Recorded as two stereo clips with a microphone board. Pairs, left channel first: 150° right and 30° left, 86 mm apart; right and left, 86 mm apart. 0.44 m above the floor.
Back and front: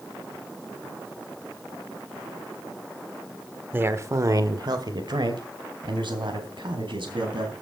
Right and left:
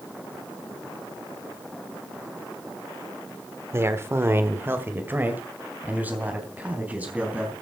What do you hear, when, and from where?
3.7 s a man speaking: 75° left, 1.3 m; by 7.5 s 15° left, 4.5 m